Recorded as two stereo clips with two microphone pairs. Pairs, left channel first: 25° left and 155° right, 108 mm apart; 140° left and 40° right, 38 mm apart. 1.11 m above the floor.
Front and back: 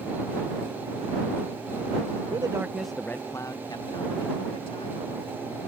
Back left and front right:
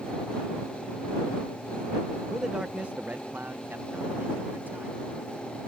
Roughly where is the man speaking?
Behind right.